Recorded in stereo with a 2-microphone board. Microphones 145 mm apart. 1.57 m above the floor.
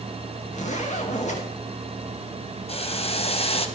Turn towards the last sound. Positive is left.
turn(degrees=45)  # may be behind; listen again after turning